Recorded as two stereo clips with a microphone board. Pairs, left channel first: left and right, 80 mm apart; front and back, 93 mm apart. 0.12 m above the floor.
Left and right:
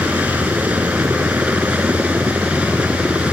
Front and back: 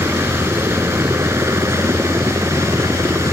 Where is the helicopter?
140° right; by 3.3 s 150° right.